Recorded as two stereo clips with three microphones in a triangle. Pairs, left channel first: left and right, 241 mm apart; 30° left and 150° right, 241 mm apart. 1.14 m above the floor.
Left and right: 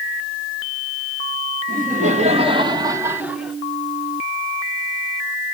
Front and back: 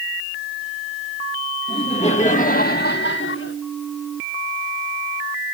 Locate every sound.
1.7 s laughter: 40° right, 1.9 m; by 3.6 s straight ahead, 1.7 m